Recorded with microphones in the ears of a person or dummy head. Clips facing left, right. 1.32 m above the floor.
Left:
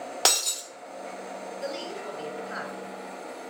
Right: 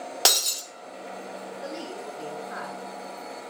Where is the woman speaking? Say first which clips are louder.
Left 2 dB; 45° left (ahead or behind), 3.5 m.